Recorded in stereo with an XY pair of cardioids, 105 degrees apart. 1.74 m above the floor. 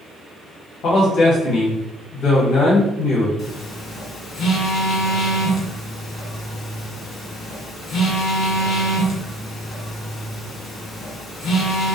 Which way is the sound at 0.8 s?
70° left.